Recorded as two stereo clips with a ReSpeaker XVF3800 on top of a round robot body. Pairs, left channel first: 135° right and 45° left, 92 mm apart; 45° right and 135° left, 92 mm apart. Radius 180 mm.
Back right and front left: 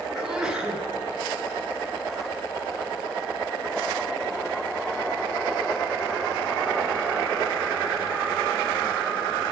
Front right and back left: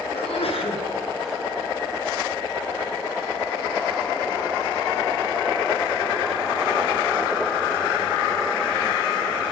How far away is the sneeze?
About 5 m.